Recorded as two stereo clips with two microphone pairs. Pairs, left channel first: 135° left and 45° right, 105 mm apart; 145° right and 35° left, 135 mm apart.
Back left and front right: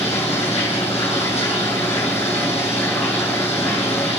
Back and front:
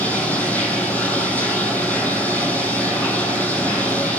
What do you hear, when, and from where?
0.0 s running water: 135° left, 2.5 m